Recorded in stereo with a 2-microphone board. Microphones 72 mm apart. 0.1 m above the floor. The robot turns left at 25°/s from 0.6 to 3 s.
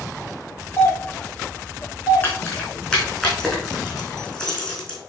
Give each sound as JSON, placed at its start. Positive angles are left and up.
{"t": 0.8, "sound": "a doorbell", "side_deg": 40, "distance_m": 3.0}
{"t": 2.2, "sound": "keys jangling", "side_deg": 30, "distance_m": 3.5}